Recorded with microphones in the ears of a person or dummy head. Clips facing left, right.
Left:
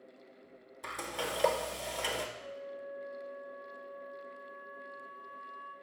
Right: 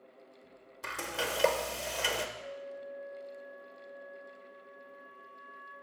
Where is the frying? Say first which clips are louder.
Right 2 dB; 5° right (ahead or behind), 1.0 m.